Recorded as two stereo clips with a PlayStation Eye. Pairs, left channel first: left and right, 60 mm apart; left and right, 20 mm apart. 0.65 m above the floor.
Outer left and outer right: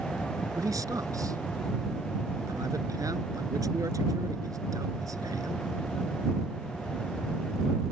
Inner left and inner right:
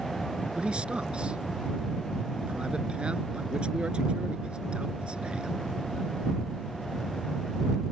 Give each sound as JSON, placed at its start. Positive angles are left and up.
{"t": 0.5, "sound": "a man speaking", "side_deg": -70}